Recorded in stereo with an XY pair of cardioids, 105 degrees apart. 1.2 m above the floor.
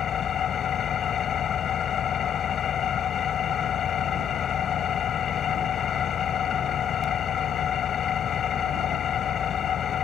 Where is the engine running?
55° left.